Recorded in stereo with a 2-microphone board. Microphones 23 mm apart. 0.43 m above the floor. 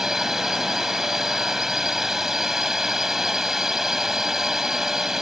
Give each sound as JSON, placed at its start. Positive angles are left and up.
{"t": 0.0, "sound": "a drone", "side_deg": -15}